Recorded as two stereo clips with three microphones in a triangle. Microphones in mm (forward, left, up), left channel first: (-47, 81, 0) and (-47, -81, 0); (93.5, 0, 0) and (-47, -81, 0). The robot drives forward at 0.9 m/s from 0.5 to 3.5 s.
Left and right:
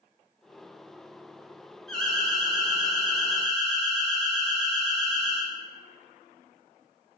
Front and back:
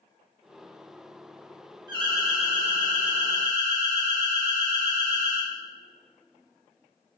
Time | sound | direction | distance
1.9 | an alarm | 175° left | 0.7 m